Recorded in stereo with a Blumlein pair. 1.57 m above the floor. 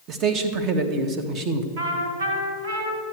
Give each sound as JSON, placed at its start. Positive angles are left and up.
{"t": 0.1, "sound": "a man speaking", "azimuth_deg": -30, "distance_m": 1.4}
{"t": 1.8, "sound": "a trumpet", "azimuth_deg": -65, "distance_m": 3.0}